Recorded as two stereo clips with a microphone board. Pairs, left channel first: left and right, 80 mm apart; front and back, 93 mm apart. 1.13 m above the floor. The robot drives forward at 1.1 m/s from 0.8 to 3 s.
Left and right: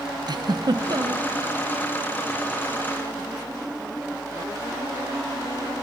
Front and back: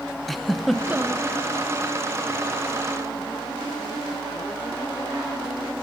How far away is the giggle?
About 0.5 m.